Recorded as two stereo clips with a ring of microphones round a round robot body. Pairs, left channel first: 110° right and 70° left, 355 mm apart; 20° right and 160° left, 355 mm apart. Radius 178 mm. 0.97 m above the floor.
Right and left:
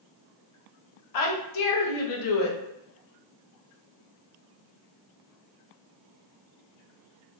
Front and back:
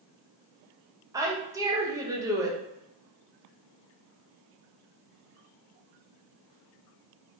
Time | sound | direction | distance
1.1 | a woman speaking | 125° right | 1.0 m